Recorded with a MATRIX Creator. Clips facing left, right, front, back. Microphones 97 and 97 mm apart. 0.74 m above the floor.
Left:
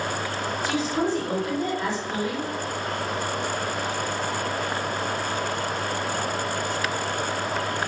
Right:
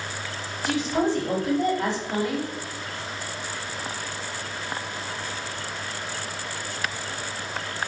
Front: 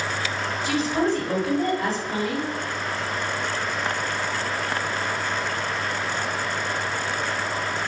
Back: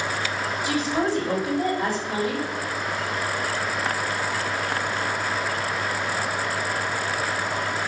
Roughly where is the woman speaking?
Right.